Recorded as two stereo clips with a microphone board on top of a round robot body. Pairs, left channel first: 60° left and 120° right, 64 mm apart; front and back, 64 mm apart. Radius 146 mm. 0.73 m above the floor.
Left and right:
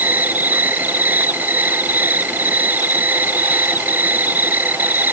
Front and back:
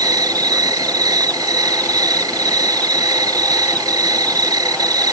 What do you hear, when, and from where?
0.0 s an insect: straight behind